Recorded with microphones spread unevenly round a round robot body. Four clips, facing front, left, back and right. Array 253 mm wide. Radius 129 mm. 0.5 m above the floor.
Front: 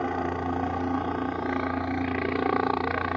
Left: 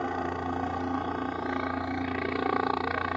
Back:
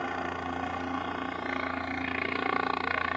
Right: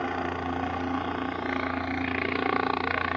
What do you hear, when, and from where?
0.0 s a helicopter: straight ahead